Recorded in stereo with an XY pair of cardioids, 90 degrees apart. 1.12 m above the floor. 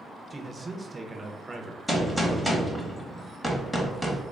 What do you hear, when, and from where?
0.3 s a man speaking: 25° right, 0.8 m
1.9 s a gunshot: straight ahead, 1.1 m